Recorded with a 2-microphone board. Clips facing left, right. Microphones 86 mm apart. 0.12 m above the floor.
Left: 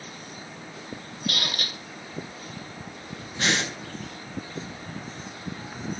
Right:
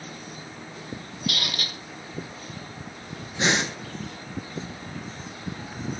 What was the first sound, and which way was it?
A squeak, 35° left (ahead or behind).